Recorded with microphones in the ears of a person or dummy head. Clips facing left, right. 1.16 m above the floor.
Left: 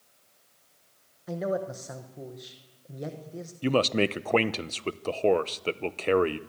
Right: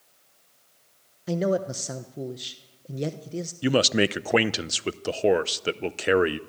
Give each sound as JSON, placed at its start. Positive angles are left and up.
{"t": 1.3, "sound": "a man speaking", "side_deg": -40, "distance_m": 1.1}
{"t": 3.6, "sound": "a man speaking", "side_deg": -10, "distance_m": 0.6}